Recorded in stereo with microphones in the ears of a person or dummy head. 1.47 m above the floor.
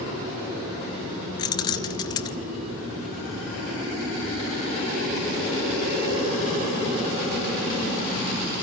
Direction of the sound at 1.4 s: 25° left (ahead or behind).